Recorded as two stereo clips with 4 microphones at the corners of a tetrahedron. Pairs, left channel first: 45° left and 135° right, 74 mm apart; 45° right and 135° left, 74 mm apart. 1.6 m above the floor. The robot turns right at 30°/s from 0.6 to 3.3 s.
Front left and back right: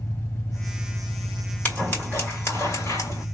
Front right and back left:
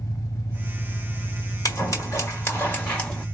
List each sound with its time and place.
0.0 s an engine running: 5° right, 1.3 m; by 3.4 s 75° left, 1.3 m
1.6 s scissors: 20° right, 2 m; by 3.2 s 25° left, 2 m